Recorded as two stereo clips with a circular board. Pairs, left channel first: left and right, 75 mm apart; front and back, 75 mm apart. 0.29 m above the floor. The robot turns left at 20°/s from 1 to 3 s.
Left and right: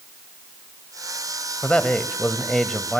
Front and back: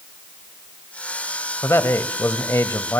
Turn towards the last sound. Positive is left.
turn(degrees=0)